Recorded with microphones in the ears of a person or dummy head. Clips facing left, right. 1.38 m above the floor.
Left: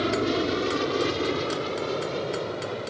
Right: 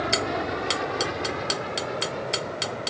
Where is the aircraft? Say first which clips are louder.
Left 3 dB; 45° left (ahead or behind).